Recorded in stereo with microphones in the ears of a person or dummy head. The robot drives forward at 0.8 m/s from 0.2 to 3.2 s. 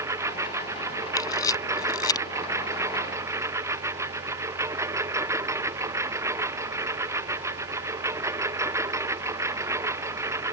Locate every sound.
0.0 s a lawn mower: 20° right (ahead or behind); by 10.5 s 15° right (ahead or behind)
1.2 s a camera shutter: 20° left (ahead or behind)